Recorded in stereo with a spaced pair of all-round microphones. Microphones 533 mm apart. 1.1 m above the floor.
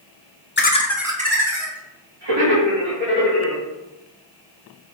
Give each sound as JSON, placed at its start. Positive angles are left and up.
{"t": 0.6, "sound": "laughter", "side_deg": 20, "distance_m": 0.6}